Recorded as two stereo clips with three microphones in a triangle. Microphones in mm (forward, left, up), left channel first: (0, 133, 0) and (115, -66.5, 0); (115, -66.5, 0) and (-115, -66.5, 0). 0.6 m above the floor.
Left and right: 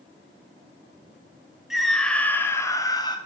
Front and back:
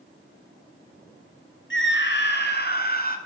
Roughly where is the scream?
Ahead left.